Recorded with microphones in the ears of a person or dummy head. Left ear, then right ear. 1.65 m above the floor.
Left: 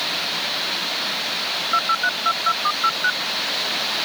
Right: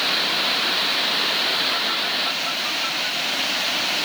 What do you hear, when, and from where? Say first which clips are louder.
1.7 s a phone buzzing: left 2 dB; 60° left (ahead or behind)